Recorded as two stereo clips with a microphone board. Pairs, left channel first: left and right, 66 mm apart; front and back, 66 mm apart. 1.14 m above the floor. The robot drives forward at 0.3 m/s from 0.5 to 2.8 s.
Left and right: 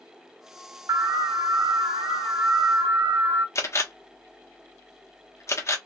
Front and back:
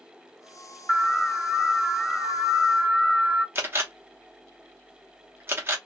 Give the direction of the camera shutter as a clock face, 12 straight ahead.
8 o'clock.